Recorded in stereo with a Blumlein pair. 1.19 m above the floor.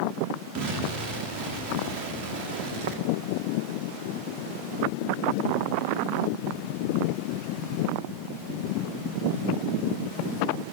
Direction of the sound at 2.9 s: 50° right.